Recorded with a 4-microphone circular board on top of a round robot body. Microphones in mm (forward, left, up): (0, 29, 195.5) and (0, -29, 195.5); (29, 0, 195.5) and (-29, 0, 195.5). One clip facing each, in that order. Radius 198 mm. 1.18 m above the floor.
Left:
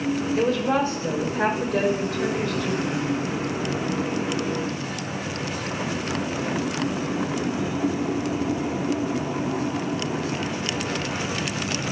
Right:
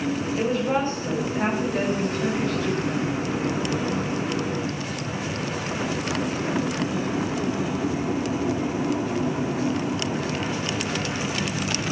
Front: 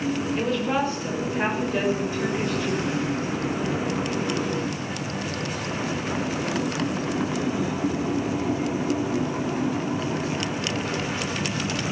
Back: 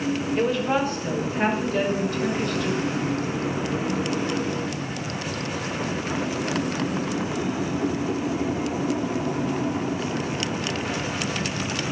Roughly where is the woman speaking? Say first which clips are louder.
Left 2 dB, back 3 dB; left.